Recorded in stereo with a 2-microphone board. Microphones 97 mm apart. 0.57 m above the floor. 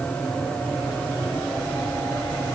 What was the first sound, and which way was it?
Only background noise.